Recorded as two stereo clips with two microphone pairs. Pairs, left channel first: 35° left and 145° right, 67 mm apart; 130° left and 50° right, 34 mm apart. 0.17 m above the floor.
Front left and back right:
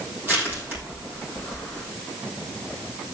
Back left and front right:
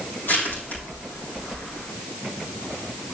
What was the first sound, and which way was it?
Crushing, 160° left.